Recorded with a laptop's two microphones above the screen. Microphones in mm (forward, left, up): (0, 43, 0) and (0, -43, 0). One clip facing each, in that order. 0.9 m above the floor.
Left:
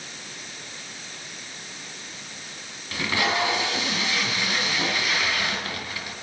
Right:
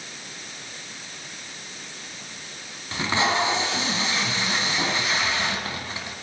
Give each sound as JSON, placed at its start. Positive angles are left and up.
{"t": 2.9, "sound": "tape being pulled", "side_deg": -25, "distance_m": 2.5}